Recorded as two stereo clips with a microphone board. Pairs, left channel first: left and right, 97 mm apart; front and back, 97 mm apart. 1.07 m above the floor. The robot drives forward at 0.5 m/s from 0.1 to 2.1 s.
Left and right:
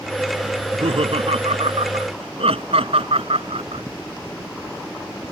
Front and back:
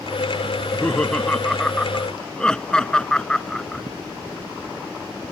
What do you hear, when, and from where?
0.6 s laughter: 80° right